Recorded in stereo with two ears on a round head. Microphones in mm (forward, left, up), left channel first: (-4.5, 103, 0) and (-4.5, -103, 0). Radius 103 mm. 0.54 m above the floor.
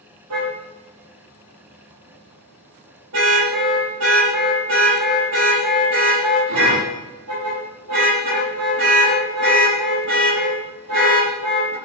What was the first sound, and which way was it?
A car horn, 75° right (ahead or behind).